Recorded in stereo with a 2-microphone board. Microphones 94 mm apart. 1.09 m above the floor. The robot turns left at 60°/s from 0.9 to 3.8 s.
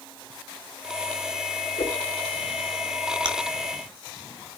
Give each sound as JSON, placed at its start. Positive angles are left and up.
{"t": 1.8, "sound": "a whoosh", "side_deg": 85, "distance_m": 4.0}
{"t": 3.2, "sound": "chewing", "side_deg": -55, "distance_m": 2.0}